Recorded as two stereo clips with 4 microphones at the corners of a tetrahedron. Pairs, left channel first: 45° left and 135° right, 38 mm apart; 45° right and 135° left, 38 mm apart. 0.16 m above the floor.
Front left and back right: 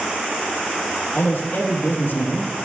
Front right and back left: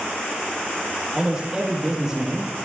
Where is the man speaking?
60° left, 3.5 m.